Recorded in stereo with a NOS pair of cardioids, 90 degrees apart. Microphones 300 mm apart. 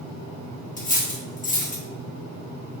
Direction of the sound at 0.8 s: 25° left.